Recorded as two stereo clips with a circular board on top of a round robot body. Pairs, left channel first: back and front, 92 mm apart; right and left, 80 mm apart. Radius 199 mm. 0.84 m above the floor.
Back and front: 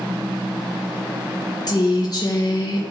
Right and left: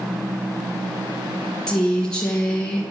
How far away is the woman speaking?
About 1.0 m.